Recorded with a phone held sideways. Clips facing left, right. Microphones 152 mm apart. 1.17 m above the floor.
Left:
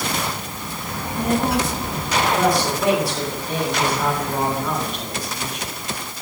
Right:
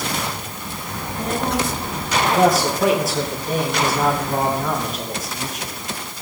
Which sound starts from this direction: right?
A man speaking, at 2.4 s.